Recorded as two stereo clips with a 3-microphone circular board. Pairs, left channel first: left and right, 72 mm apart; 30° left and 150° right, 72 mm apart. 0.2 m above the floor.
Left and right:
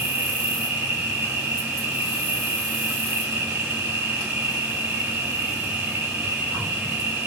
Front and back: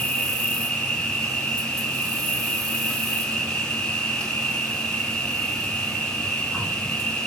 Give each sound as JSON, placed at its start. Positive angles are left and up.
{"t": 0.0, "sound": "an insect", "azimuth_deg": -40, "distance_m": 3.0}